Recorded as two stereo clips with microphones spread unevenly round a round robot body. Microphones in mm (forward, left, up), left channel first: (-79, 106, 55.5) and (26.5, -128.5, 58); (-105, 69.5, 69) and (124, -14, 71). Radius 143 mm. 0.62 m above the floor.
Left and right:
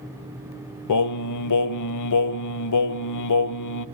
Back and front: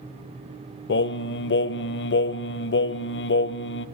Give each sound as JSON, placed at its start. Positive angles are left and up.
{"t": 0.9, "sound": "singing", "azimuth_deg": 120, "distance_m": 0.6}